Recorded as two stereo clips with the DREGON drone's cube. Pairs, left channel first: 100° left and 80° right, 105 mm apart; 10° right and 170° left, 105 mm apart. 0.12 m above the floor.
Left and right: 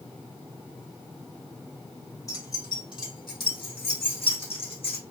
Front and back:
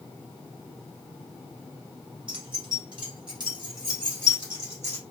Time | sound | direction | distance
2.3 | keys jangling | 150° left | 1.4 m